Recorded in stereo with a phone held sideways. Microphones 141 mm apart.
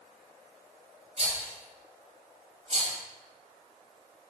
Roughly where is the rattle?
Right.